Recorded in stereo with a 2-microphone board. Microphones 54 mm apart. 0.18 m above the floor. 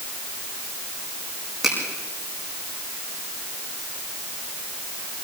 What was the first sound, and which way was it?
A finger snap, 5° right (ahead or behind).